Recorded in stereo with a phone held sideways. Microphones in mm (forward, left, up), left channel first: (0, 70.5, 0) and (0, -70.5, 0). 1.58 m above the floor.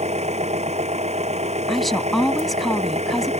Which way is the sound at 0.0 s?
45° right (ahead or behind).